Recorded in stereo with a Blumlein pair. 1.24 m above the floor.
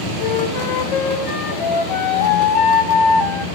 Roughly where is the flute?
Ahead left.